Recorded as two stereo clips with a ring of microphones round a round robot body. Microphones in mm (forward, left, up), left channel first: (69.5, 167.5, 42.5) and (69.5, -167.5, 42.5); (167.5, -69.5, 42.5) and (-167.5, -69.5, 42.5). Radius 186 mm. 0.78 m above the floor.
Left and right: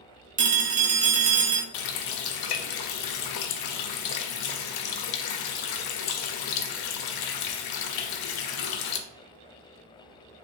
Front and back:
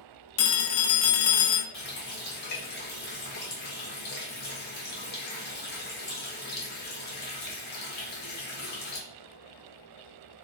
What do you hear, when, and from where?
0.4 s a phone ringing: 25° right, 0.7 m
1.7 s a running tap: 65° left, 0.5 m